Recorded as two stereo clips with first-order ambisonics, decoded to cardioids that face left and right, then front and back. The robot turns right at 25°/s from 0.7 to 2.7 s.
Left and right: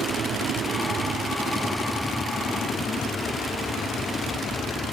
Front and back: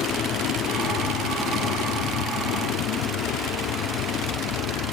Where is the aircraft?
35° right; by 4.9 s 15° left.